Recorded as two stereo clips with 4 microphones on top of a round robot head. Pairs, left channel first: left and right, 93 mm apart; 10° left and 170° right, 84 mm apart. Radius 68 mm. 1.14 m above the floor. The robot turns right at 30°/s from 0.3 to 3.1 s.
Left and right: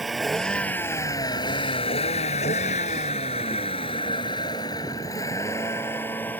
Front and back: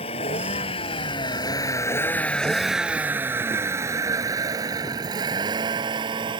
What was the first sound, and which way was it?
A vehicle, straight ahead.